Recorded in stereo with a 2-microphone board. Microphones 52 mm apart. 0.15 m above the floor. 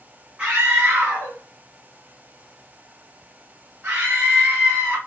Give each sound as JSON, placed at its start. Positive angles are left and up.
{"t": 0.4, "sound": "a scream", "side_deg": -20, "distance_m": 1.8}